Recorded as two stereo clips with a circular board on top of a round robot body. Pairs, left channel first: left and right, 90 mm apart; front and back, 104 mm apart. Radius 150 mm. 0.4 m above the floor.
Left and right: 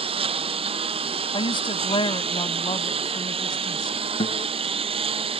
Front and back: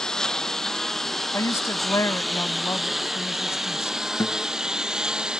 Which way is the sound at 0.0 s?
85° right.